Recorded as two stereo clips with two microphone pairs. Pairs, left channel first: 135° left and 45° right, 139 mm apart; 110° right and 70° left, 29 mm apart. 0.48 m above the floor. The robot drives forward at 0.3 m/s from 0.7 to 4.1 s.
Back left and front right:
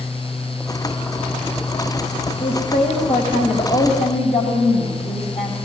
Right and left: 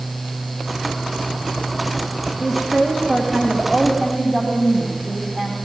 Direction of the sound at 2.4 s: 160° left.